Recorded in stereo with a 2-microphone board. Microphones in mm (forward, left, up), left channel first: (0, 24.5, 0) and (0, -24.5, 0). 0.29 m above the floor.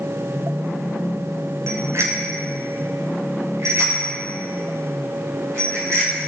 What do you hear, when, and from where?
1.7 s a bicycle bell: 70° right (ahead or behind), 2.5 m; by 6.3 s 75° right (ahead or behind), 8.5 m